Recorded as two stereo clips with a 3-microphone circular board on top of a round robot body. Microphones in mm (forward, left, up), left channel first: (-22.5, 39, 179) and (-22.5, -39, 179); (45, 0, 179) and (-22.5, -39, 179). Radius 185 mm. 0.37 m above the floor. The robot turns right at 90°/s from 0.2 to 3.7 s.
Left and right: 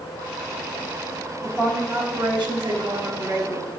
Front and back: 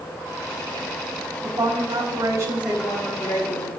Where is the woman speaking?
175° left, 3.5 m; by 3.8 s 20° left, 3.5 m.